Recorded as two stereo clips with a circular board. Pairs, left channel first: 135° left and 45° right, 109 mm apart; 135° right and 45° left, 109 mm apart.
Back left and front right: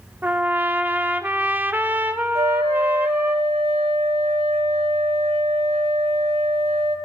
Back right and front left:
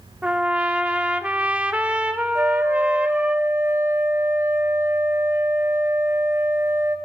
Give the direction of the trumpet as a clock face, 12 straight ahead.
12 o'clock.